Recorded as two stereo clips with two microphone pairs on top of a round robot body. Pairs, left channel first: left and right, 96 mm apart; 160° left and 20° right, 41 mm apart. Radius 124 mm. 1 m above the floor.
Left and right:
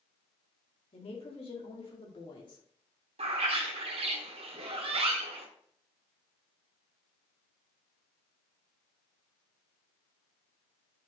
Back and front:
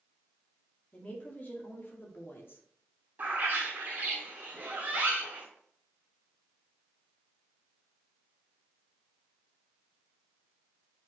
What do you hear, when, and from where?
0.9 s a woman speaking: 105° left, 2.5 m; by 2.6 s 130° left, 2.5 m
3.2 s a bird: 65° right, 1.0 m